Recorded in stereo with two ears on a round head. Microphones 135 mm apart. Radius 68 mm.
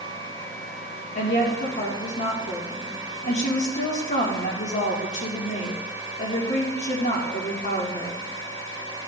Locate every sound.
1.1 s a woman speaking: 50° left (ahead or behind), 1.8 m